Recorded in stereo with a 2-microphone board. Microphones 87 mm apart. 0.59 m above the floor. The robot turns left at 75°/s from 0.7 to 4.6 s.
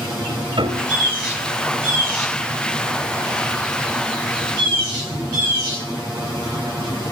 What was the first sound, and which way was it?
A piano, 75° right (ahead or behind).